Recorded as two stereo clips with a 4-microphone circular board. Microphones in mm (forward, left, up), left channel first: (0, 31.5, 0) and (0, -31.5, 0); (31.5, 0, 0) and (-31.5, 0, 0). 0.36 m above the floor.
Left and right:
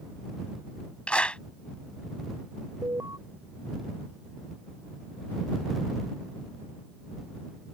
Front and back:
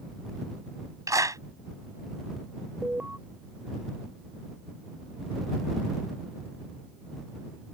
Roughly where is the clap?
Behind.